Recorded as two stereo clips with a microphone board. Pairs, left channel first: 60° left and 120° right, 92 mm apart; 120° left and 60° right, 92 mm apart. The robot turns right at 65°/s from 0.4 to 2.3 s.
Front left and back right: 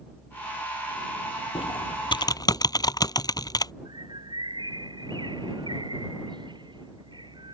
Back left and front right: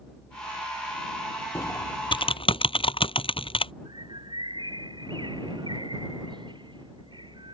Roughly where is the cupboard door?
I don't hear a cupboard door.